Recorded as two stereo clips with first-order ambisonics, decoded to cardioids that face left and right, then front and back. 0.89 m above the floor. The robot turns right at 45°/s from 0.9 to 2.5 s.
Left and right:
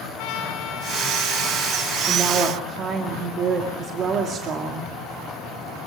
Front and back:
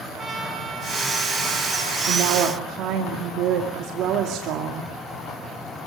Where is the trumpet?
115° left, 8.5 m; by 2.0 s 165° left, 8.5 m.